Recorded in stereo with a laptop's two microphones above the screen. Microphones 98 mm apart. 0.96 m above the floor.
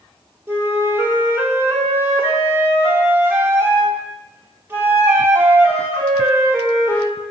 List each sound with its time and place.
0.5 s a flute: 20° right (ahead or behind), 0.8 m